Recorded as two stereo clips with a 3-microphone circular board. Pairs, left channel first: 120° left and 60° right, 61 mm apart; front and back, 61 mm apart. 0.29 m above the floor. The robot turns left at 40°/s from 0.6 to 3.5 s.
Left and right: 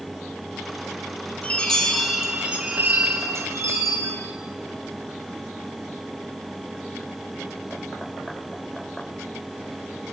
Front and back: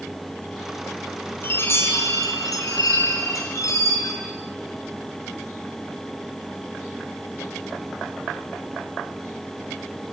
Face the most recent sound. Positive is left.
turn(degrees=-30)